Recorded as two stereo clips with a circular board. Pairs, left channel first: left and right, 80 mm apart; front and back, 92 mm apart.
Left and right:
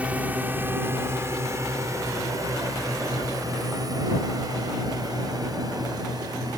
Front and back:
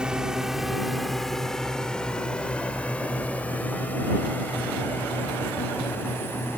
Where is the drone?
115° right; by 6.6 s 65° right.